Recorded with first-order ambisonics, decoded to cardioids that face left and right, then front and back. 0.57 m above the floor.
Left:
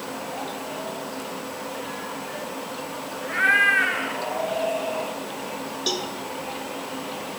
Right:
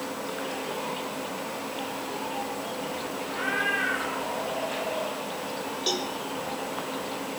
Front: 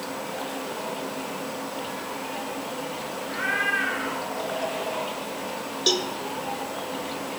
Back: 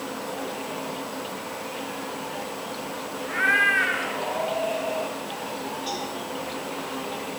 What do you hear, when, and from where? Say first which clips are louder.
3.3 s a cat meowing: left 10 dB, back 5 dB; 120° left, 1.7 m; by 5.2 s 130° left, 3 m
5.9 s a cowbell: left 2 dB, front 11 dB; 10° left, 1.3 m